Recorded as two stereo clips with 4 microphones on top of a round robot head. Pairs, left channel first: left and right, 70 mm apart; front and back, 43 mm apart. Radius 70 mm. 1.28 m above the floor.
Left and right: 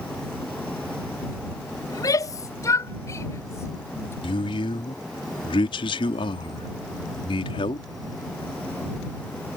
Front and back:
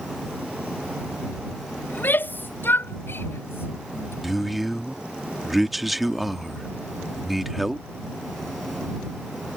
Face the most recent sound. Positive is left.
turn(degrees=90)